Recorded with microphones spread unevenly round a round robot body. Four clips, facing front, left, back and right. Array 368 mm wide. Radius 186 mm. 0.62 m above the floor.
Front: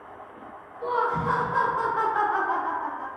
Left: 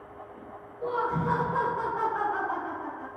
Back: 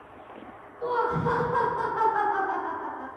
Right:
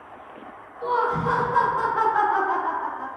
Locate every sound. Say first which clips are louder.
0.8 s laughter: right 6 dB, front 1 dB; 155° left, 1.0 m; by 3.1 s 65° right, 1.4 m